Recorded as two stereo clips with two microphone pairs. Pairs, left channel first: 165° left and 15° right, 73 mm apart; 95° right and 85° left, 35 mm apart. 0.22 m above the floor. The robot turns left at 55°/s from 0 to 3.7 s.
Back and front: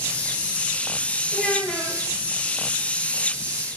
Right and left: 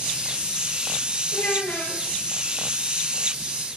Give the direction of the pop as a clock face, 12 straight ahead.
I don't hear a pop.